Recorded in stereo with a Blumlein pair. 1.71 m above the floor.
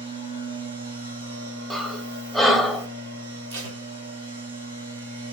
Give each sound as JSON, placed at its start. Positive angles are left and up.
{"t": 0.0, "sound": "a machine running", "azimuth_deg": -70, "distance_m": 2.0}
{"t": 1.7, "sound": "breathing", "azimuth_deg": -10, "distance_m": 1.1}
{"t": 3.5, "sound": "tape being pulled", "azimuth_deg": -55, "distance_m": 1.6}